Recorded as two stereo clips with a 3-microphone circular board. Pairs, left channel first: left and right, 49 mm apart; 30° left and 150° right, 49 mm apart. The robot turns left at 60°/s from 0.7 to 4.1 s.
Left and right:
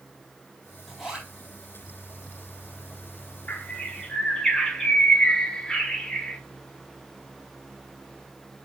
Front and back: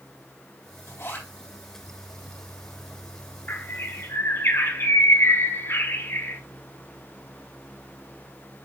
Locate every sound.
0.9 s a zipper: 5° left, 4 m; by 1.3 s 20° right, 4 m
3.5 s a bird: 55° left, 1.2 m; by 6.4 s 15° left, 1.2 m